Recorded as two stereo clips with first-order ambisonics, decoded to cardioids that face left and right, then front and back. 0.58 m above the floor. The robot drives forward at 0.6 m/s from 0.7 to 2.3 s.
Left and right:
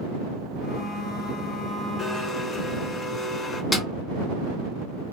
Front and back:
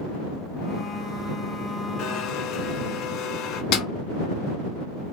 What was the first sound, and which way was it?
A blender, 25° left.